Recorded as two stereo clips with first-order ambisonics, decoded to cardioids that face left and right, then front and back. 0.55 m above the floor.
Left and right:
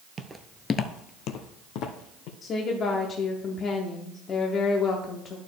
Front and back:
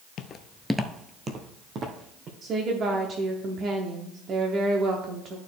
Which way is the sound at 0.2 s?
30° right.